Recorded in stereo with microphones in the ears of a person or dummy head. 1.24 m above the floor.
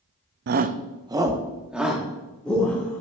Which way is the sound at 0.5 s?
50° right (ahead or behind).